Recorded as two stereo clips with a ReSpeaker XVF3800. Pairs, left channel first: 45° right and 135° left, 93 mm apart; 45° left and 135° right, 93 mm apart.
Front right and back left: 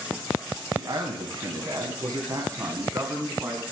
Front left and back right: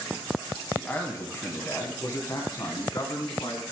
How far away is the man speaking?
About 2.5 m.